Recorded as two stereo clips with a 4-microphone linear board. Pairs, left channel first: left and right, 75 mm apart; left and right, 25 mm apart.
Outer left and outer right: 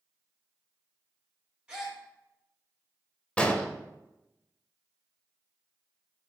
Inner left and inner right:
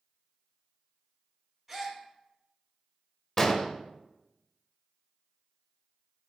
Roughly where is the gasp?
Centre.